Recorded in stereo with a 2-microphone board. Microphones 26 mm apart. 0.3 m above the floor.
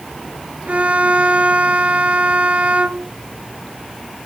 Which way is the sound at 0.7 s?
55° right (ahead or behind).